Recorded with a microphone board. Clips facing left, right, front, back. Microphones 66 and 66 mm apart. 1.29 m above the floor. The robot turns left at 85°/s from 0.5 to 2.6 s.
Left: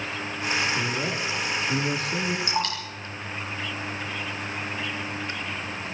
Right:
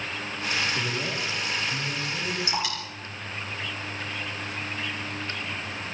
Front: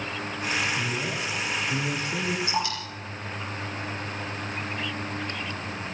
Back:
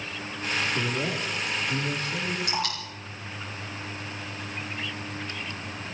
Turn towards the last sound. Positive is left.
turn(degrees=-170)